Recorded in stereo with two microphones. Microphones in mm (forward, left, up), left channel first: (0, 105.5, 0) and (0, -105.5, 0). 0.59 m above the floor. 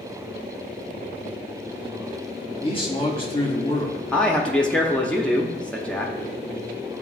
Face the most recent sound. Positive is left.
turn(degrees=5)  # may be behind; listen again after turning